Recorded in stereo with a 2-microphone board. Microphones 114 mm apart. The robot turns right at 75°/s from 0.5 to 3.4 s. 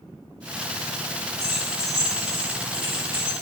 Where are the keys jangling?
65° right (ahead or behind), 2.5 m; by 3.4 s 80° left, 2.5 m.